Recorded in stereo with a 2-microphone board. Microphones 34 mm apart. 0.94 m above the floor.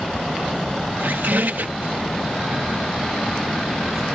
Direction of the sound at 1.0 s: 75° right (ahead or behind).